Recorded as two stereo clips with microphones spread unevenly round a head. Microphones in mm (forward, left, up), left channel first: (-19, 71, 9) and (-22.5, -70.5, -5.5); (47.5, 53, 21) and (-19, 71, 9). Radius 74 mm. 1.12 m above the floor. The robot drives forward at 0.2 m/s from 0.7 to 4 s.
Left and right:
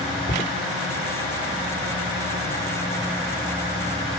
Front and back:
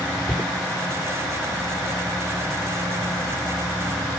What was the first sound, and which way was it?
Footsteps, 75° left.